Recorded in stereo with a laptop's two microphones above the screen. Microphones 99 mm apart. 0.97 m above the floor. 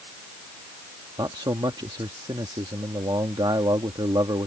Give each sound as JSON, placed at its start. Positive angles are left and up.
{"t": 1.2, "sound": "a man speaking", "side_deg": -50}